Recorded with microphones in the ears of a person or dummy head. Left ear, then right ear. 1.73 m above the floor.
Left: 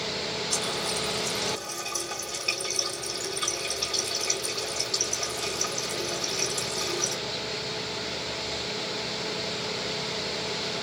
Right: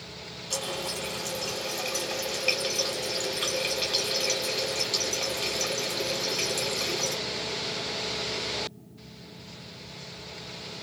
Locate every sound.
0.5 s a running tap: 15° right (ahead or behind), 1.6 m